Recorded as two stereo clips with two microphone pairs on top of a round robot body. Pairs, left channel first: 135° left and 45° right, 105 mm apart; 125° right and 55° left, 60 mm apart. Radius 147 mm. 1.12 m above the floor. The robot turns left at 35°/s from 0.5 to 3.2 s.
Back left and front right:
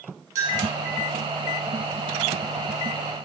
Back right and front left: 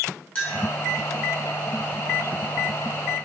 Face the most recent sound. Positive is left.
turn(degrees=-150)